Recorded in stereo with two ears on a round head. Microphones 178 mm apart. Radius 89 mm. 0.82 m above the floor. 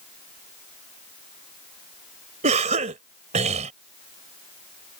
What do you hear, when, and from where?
2.4 s a cough: 35° right (ahead or behind)